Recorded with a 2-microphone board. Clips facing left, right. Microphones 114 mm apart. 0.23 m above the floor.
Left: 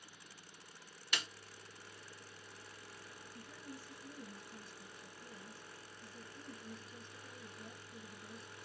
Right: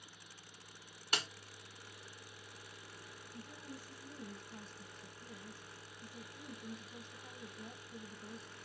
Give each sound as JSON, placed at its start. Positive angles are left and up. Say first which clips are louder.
{"t": 1.1, "sound": "a snare drum", "louder": "right 3 dB", "side_deg": -45, "distance_m": 0.9}
{"t": 3.3, "sound": "a woman speaking", "louder": "right 2 dB", "side_deg": -35, "distance_m": 1.3}